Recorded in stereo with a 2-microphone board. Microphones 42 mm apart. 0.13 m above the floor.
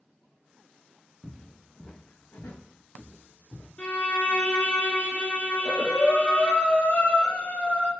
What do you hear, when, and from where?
1.2 s footsteps: 30° right (ahead or behind), 0.7 m; by 3.7 s 85° left, 1.6 m
3.8 s a violin: 40° left (ahead or behind), 0.7 m
5.5 s breathing: 45° left (ahead or behind), 0.9 m